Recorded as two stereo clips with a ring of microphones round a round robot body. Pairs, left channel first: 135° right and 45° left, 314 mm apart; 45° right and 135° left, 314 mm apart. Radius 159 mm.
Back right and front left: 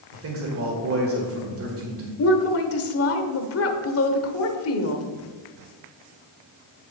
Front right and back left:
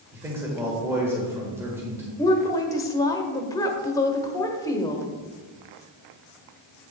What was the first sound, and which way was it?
A man speaking, 55° left.